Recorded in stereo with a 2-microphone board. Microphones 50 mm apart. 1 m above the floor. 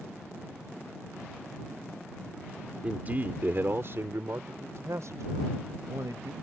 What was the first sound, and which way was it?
A man speaking, 30° right (ahead or behind).